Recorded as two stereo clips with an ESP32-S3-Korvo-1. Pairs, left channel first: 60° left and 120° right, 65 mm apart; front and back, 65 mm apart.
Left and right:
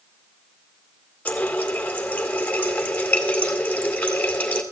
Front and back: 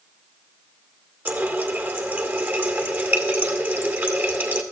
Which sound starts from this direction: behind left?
A running tap, at 1.2 s.